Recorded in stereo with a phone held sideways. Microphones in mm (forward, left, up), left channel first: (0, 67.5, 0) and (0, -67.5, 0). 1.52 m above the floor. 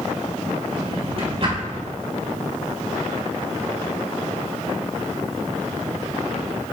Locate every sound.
0.7 s a drawer: 45° right (ahead or behind), 3 m